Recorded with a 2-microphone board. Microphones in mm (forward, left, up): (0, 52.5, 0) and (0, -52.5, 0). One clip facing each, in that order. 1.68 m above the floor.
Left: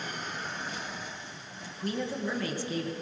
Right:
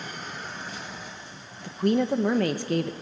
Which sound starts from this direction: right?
A woman speaking, at 1.6 s.